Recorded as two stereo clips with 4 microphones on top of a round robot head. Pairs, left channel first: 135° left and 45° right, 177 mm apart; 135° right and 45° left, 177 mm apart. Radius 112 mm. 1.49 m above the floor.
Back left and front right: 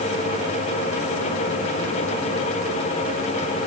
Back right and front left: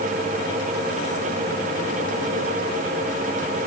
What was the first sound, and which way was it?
Only background noise.